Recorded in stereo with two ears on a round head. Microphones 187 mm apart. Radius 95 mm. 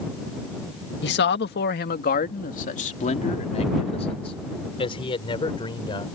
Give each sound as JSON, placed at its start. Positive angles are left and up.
{"t": 1.0, "sound": "a man speaking", "side_deg": 55}